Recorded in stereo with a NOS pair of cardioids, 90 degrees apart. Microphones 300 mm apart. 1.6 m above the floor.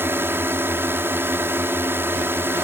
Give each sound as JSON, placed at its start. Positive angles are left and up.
{"t": 0.0, "sound": "a drone", "azimuth_deg": -5}